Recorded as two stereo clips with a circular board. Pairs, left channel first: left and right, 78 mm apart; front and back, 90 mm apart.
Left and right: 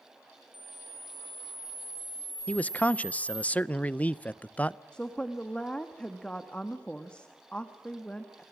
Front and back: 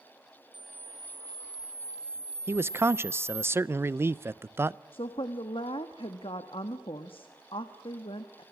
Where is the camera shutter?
150° right, 1.5 m.